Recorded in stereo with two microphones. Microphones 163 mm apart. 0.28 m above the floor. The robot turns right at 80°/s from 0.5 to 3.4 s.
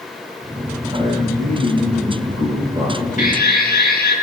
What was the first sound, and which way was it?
A man speaking, 165° right.